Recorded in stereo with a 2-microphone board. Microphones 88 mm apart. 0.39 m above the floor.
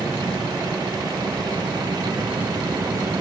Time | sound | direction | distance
0.0 | a vehicle | 55° right (ahead or behind) | ?